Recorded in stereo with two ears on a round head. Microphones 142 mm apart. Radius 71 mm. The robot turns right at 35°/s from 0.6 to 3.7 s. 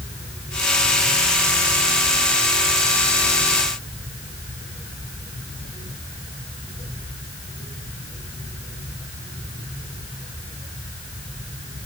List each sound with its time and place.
Only background noise.